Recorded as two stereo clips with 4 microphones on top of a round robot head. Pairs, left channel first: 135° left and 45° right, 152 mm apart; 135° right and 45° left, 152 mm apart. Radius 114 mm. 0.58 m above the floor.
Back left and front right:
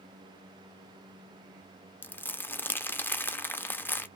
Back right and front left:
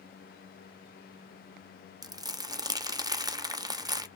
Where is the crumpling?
75° left, 0.6 m.